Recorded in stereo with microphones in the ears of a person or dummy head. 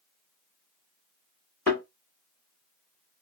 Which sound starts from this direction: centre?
A thud, at 1.7 s.